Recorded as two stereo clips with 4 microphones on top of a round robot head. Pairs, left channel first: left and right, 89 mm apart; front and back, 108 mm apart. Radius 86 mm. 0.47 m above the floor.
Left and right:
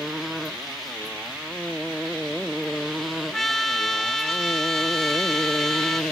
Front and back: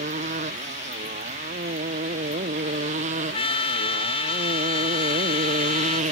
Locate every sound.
0.0 s a motorcycle: straight behind; by 6.1 s 175° left
3.3 s a trumpet: 5° left